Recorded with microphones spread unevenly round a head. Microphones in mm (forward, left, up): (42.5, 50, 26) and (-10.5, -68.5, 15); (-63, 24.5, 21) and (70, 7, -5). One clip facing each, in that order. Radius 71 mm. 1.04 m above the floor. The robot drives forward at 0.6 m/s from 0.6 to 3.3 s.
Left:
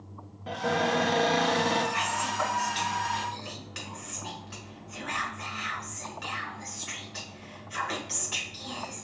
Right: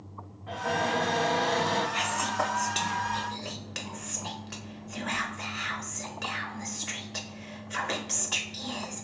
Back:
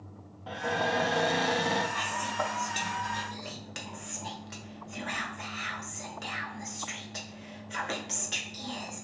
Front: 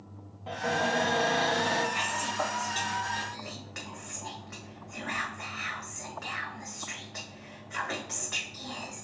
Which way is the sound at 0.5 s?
75° left.